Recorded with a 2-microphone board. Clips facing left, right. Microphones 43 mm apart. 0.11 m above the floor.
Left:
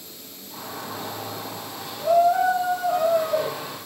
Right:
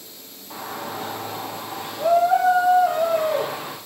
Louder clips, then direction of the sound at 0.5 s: Right 3 dB; 75° right (ahead or behind).